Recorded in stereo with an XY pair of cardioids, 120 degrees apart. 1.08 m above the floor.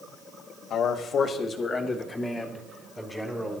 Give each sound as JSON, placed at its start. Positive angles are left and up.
{"t": 0.7, "sound": "a man speaking", "azimuth_deg": 60, "distance_m": 2.0}